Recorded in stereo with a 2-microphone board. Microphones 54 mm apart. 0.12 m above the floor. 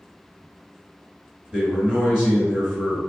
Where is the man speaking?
10° right (ahead or behind), 1.7 m.